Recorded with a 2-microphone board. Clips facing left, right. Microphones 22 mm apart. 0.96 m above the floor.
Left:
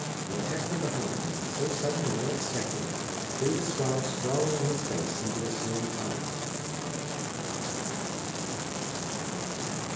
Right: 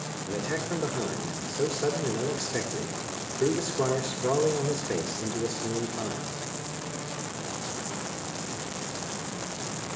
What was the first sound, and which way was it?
A man speaking, 45° right (ahead or behind).